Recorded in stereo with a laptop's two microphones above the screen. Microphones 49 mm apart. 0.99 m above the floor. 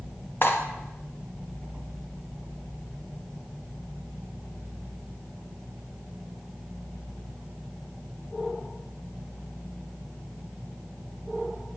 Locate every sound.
0.4 s cutlery clinking: 45° left (ahead or behind), 0.6 m